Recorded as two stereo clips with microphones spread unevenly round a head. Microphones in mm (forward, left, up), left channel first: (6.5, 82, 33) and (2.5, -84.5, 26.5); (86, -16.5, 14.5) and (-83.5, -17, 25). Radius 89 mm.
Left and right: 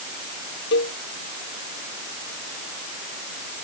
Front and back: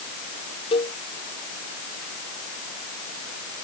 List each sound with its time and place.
0.7 s a cowbell: 65° left